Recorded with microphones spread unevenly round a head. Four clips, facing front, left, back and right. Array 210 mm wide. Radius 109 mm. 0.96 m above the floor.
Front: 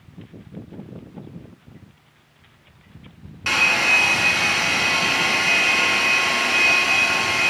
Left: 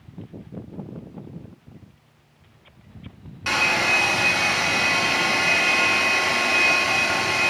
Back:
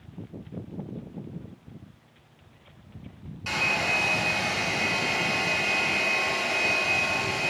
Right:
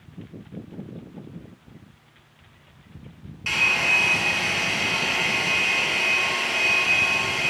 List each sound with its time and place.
3.5 s a hair dryer: 30° left, 4.5 m